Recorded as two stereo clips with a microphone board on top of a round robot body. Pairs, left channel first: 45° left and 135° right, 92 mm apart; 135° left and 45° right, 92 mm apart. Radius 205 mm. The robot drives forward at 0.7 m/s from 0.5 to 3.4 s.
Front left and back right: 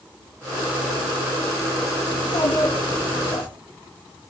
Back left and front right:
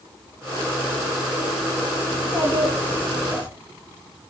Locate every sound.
2.1 s a child speaking: 70° left, 6 m; by 3.5 s 80° left, 5.5 m